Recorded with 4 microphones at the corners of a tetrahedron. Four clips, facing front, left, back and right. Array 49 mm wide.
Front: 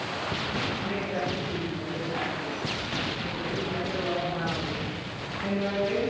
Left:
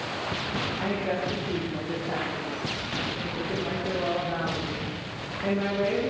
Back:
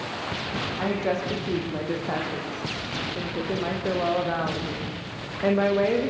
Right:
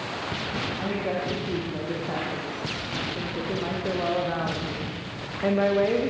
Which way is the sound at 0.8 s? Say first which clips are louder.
Even, back 4 dB; straight behind.